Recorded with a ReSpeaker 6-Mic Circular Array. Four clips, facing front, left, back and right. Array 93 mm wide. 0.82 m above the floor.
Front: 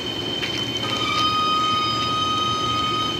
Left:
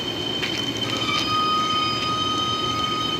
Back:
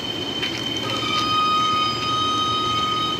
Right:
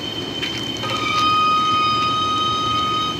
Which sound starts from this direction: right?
A violin, at 0.8 s.